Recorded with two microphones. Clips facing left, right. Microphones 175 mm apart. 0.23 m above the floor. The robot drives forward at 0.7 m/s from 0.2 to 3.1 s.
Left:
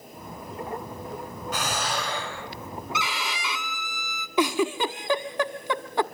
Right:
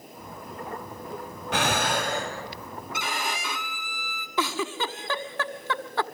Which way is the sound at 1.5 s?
70° right (ahead or behind).